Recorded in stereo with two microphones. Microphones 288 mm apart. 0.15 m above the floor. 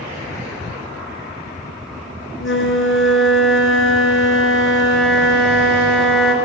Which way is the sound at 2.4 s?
45° left (ahead or behind).